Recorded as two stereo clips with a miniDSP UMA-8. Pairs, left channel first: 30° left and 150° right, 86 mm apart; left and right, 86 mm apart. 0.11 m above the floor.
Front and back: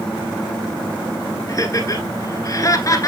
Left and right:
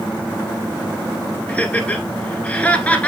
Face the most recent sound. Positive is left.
turn(degrees=25)